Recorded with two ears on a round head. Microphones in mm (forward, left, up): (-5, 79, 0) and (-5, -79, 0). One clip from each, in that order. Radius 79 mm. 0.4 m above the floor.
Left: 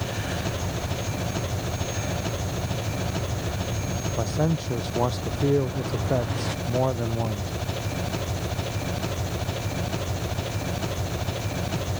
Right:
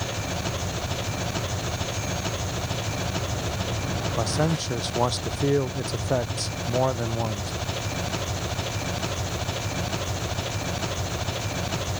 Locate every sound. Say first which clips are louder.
0.0 s an engine running: even; 25° right (ahead or behind)
4.2 s a man speaking: right 1 dB; 60° right (ahead or behind)